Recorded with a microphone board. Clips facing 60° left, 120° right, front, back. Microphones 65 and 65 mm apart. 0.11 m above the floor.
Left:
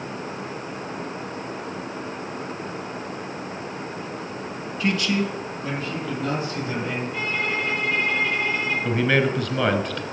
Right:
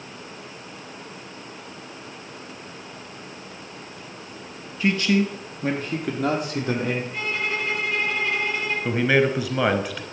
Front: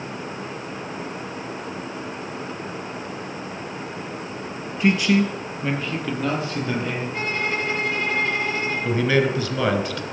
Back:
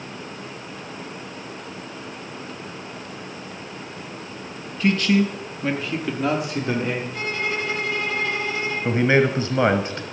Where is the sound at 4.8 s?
55° right, 2.0 m; by 7.0 s 115° right, 4 m.